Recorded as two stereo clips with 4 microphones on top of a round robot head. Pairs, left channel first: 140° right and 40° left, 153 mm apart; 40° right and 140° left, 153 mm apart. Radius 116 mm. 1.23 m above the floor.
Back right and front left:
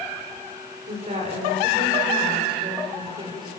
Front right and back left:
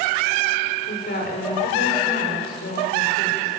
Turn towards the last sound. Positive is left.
turn(degrees=-25)